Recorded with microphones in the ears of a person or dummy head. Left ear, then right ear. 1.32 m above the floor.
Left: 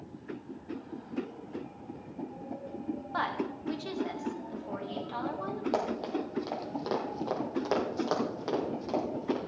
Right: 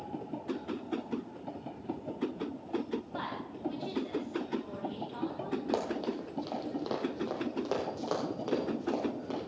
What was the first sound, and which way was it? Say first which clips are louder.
A woman speaking: left 6 dB; 40° left (ahead or behind).